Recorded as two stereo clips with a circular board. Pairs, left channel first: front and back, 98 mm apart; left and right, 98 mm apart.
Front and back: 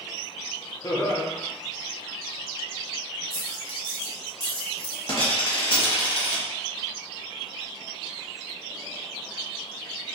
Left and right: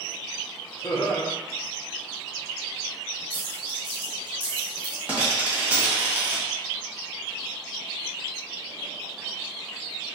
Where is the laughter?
45° left, 0.8 m.